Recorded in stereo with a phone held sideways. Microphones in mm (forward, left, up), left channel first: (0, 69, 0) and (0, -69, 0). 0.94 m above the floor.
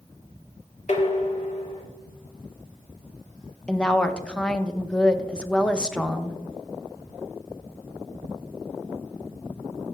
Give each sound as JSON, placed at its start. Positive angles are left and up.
{"t": 0.9, "sound": "dishes clattering", "side_deg": 55, "distance_m": 1.2}
{"t": 3.7, "sound": "a woman speaking", "side_deg": 5, "distance_m": 0.5}